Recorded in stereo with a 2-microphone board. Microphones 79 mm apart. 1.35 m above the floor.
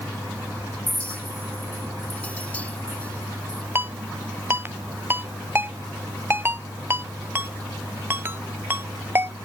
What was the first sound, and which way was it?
A clink, 15° left (ahead or behind).